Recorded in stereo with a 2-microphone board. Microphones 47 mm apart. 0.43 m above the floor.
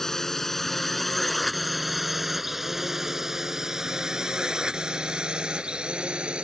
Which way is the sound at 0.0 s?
10° left (ahead or behind).